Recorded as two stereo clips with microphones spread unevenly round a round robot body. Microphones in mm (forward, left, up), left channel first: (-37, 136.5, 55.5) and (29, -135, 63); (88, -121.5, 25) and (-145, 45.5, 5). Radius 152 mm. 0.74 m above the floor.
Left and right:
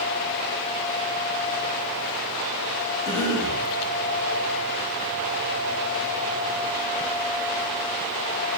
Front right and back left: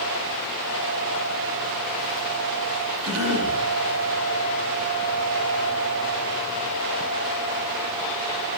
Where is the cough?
175° right, 5.5 m.